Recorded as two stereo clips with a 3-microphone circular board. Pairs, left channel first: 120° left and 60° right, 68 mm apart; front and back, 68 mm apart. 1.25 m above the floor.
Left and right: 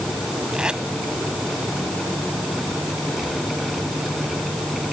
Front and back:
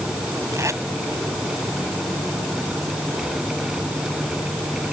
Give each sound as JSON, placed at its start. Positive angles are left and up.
{"t": 0.5, "sound": "tape being pulled", "azimuth_deg": -140}